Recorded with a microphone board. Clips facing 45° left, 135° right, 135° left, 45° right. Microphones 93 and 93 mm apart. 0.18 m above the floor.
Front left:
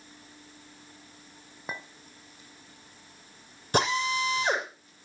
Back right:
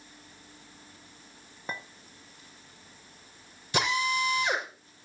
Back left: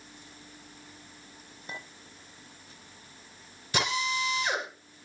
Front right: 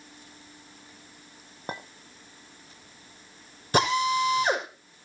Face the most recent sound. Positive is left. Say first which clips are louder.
# front left 2 dB, front right 7 dB
turn(degrees=0)